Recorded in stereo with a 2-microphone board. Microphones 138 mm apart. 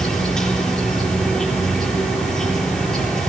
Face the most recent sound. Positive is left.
turn(degrees=5)  # may be behind; listen again after turning